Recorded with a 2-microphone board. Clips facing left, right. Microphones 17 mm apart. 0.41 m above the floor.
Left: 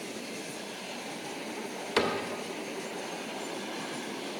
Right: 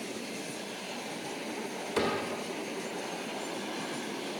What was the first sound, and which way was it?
A cupboard door, 35° left (ahead or behind).